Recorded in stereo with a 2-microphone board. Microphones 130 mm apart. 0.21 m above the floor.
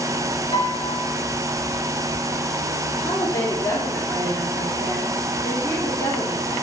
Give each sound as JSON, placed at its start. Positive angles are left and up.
{"t": 0.5, "sound": "a piano", "side_deg": 35, "distance_m": 1.4}
{"t": 3.0, "sound": "a woman speaking", "side_deg": 25, "distance_m": 3.0}